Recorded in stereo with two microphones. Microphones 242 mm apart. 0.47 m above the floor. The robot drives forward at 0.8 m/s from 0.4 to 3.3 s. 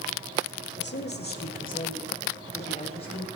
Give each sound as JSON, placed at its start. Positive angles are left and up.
{"t": 0.8, "sound": "a woman speaking", "side_deg": 45, "distance_m": 1.5}